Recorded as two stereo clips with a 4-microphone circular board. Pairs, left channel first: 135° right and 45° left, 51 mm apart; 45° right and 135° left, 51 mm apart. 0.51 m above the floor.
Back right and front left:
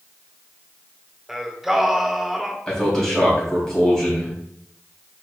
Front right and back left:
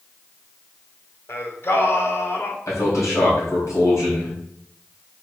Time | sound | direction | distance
1.3 | singing | 40° right | 1.0 m
2.7 | a man speaking | 55° right | 4 m